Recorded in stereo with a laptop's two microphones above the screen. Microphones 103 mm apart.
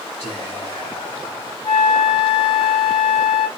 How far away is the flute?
About 1.3 m.